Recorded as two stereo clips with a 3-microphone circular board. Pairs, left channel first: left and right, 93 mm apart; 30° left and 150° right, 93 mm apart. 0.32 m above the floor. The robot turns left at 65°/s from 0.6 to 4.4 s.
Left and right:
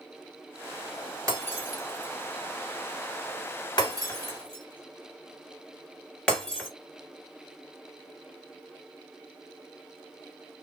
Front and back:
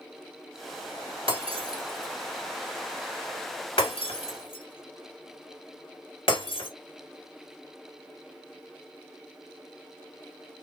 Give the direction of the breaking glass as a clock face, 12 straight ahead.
5 o'clock.